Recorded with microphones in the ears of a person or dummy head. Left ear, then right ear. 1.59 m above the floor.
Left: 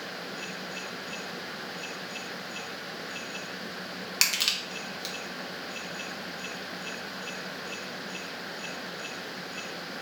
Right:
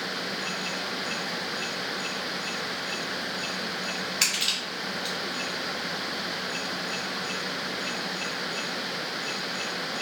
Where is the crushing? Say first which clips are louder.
Left 1 dB; 65° left (ahead or behind), 0.9 m.